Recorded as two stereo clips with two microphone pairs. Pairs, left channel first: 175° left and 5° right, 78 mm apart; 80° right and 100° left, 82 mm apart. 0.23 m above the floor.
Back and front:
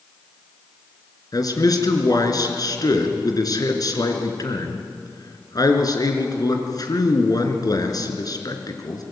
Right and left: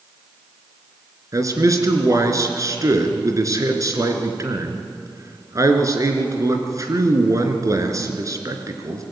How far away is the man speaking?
About 3.5 m.